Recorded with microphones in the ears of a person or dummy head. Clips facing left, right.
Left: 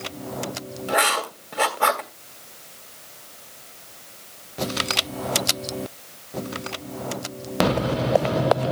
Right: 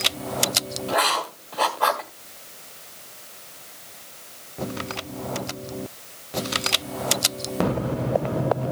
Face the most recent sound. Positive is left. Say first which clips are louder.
# left 1 dB
turn(degrees=30)  # may be behind; listen again after turning